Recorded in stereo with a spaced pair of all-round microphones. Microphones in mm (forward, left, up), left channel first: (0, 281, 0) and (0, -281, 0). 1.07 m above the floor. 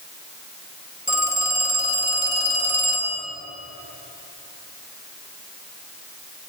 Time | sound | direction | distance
1.1 | a phone ringing | 20° left (ahead or behind) | 2 m